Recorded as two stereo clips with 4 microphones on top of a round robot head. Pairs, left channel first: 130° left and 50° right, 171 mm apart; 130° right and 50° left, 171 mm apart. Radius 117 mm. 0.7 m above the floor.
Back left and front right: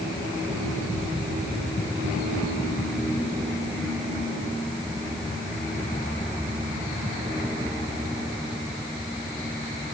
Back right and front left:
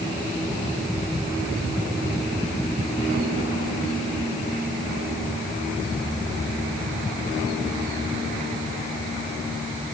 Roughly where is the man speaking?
I don't hear a man speaking.